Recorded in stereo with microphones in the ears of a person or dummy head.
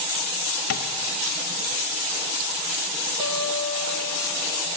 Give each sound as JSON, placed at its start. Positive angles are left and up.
{"t": 0.7, "sound": "tapping", "side_deg": 55, "distance_m": 0.7}
{"t": 3.2, "sound": "a guitar", "side_deg": -20, "distance_m": 1.5}